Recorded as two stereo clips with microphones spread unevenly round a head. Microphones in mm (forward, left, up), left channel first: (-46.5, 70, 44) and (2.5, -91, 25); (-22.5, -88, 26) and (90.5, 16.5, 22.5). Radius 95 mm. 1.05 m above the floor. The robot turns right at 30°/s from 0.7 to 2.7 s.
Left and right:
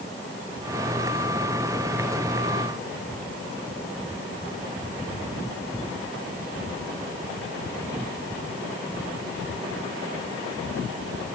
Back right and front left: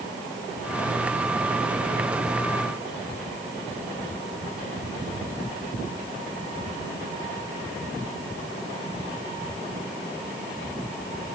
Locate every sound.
Only background noise.